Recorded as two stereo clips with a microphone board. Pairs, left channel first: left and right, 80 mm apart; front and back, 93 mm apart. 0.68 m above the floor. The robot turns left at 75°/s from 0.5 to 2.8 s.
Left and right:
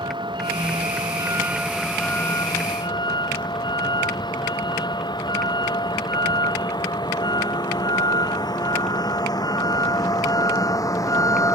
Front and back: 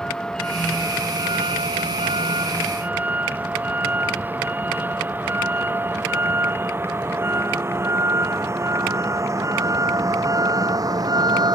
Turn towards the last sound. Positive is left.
turn(degrees=140)